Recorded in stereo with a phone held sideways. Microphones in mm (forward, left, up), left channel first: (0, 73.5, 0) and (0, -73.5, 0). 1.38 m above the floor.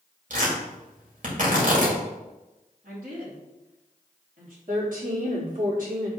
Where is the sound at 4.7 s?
70° right (ahead or behind), 3.5 m.